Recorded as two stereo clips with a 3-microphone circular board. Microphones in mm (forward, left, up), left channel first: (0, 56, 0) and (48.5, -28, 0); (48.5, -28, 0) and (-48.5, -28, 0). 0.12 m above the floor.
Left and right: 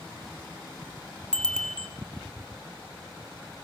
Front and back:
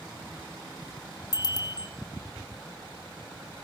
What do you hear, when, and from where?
1.3 s a bicycle bell: 40° left, 2.5 m